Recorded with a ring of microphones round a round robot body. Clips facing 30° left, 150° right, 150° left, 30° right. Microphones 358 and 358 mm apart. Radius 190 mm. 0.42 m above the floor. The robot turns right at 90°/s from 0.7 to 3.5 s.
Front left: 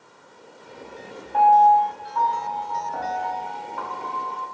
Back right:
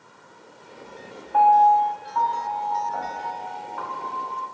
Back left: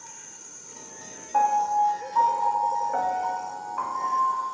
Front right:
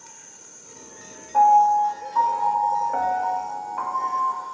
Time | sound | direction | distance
1.3 | a piano | 175° right | 0.5 m